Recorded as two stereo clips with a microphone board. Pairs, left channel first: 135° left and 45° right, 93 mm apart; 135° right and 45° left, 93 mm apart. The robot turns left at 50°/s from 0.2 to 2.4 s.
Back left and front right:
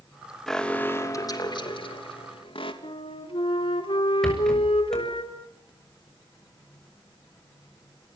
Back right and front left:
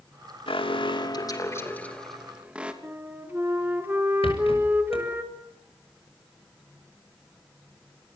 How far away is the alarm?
About 3 m.